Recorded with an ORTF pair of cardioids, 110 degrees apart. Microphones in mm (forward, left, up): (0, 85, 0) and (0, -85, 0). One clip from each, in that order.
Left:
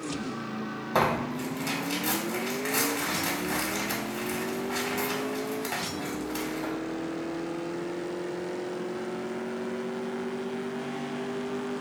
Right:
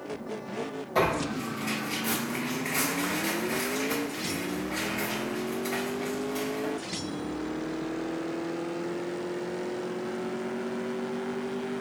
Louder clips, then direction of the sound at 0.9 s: Even; 65° left.